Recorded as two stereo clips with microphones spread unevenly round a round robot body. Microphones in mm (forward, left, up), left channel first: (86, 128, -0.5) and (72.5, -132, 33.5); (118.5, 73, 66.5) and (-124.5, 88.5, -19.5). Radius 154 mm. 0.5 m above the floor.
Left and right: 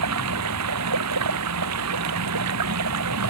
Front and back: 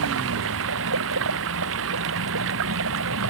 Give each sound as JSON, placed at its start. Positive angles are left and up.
{"t": 0.0, "sound": "running water", "azimuth_deg": -135}